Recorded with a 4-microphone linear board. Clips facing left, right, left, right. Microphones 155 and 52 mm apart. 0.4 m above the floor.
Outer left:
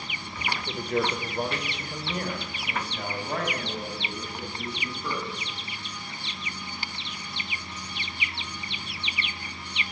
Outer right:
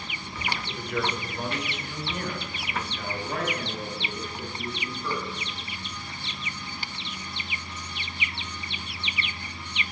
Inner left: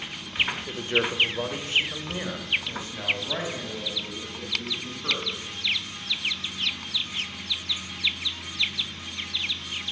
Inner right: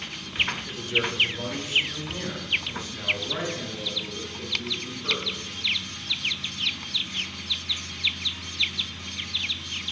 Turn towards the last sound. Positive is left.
turn(degrees=25)  # may be behind; listen again after turning